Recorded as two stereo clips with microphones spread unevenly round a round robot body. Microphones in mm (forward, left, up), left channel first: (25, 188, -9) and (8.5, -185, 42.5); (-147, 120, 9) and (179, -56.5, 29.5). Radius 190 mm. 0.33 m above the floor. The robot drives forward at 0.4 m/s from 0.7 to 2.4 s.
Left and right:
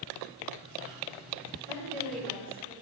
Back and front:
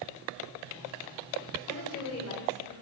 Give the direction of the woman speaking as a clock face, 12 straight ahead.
7 o'clock.